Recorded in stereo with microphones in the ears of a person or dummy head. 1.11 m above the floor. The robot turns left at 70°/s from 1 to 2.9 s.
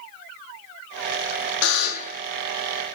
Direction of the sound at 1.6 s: 75° left.